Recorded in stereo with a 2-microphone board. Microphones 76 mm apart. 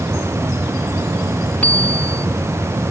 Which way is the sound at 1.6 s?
20° left (ahead or behind).